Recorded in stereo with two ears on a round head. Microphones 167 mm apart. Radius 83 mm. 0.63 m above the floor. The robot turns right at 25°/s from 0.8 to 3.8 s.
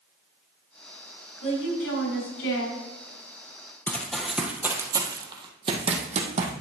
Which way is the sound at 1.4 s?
40° left.